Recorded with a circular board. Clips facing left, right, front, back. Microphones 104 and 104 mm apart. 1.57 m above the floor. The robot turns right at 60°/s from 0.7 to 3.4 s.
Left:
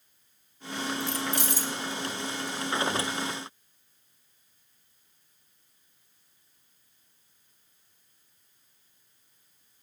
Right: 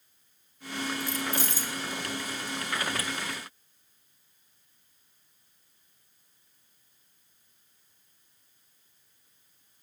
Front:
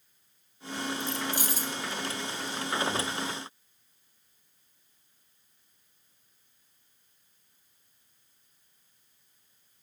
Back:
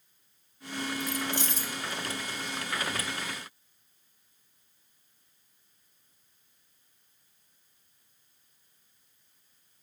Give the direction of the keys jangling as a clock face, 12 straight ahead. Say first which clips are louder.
Left 1 dB, even; 10 o'clock.